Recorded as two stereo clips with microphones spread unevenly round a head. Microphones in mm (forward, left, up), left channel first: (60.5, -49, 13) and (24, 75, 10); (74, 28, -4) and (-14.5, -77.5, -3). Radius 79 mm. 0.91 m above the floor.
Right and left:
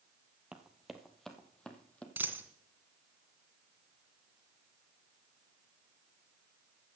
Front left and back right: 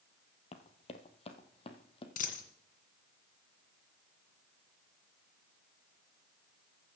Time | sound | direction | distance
0.5 | running footsteps | 20° left | 1.4 m
2.2 | a dropped coin | 30° left | 2 m